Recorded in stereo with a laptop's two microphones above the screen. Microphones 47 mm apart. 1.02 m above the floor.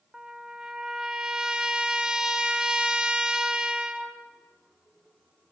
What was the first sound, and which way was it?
A trumpet, 15° right (ahead or behind).